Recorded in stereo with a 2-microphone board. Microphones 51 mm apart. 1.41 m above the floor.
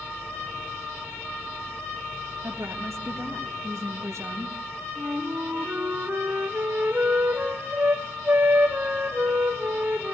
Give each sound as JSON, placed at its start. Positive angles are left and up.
{"t": 2.4, "sound": "a woman speaking", "side_deg": -80, "distance_m": 1.7}
{"t": 5.0, "sound": "a flute", "side_deg": -35, "distance_m": 3.5}